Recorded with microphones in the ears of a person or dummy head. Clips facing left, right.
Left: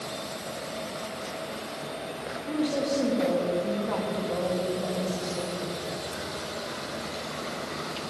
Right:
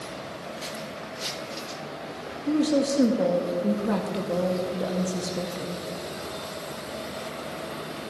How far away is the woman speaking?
About 1.8 m.